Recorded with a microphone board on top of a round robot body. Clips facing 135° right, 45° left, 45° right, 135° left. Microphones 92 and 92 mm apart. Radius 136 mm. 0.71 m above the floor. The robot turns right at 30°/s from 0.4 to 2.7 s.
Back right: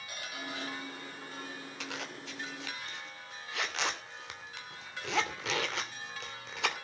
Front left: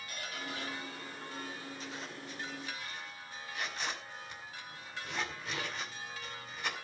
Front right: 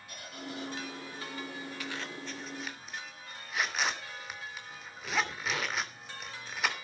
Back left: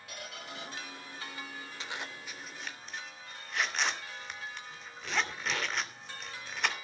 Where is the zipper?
155° right, 3 m; by 6.8 s 130° right, 3 m.